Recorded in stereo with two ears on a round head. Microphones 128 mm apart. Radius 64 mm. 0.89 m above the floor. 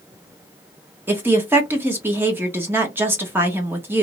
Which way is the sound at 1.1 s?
15° right (ahead or behind).